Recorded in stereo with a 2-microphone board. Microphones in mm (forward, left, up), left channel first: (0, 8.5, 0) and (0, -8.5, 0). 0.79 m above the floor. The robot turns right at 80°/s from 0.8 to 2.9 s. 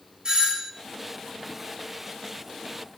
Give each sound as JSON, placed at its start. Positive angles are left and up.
{"t": 0.2, "sound": "a doorbell", "side_deg": -45, "distance_m": 1.8}